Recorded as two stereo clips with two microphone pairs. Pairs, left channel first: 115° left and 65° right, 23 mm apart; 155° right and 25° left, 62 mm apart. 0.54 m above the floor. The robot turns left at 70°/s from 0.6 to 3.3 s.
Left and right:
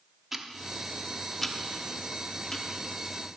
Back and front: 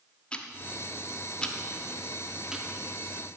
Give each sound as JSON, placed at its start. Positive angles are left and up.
{"t": 0.3, "sound": "ticking", "azimuth_deg": -130, "distance_m": 0.9}